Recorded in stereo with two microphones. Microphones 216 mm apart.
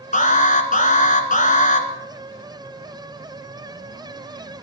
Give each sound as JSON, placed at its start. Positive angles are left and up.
{"t": 0.1, "sound": "an alarm", "side_deg": 35, "distance_m": 2.0}